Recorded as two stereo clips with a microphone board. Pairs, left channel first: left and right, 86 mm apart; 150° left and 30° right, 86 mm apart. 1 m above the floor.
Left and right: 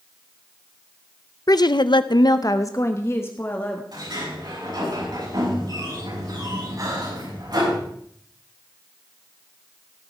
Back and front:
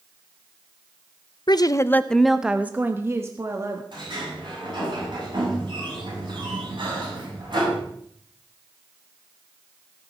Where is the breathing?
45° right, 7 m.